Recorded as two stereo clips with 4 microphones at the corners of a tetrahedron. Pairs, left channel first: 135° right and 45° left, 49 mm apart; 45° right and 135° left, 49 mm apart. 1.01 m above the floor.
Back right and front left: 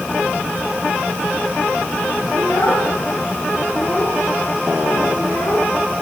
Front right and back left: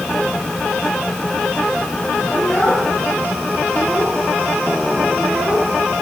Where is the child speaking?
140° right, 8 m; by 5.7 s 135° right, 7 m.